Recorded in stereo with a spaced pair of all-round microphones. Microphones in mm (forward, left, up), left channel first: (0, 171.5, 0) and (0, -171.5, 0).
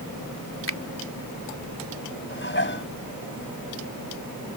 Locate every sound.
0.7 s a finger snap: 35° left (ahead or behind)
2.3 s dishes clattering: 30° left (ahead or behind)